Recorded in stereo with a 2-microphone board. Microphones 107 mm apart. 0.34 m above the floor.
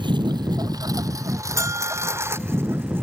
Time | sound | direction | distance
0.0 | a lawn mower | 50° right (ahead or behind) | ?
1.6 | a bell | 30° right (ahead or behind) | ?